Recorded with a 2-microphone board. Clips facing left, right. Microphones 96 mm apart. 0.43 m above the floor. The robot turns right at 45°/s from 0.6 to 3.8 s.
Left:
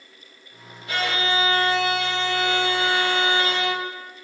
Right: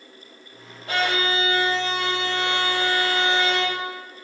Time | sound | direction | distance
0.9 | a violin | 95° right | 1.1 m